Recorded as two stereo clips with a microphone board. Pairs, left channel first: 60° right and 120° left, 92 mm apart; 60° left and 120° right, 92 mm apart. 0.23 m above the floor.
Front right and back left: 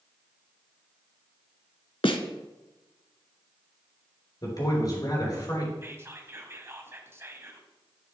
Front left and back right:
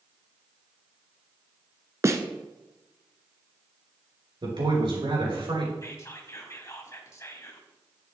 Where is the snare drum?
65° right, 0.9 m.